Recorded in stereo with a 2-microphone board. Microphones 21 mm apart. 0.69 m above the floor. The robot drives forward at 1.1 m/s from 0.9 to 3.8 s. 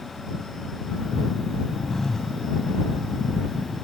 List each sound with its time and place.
1.9 s a phone buzzing: 25° left (ahead or behind); by 2.4 s 20° left (ahead or behind)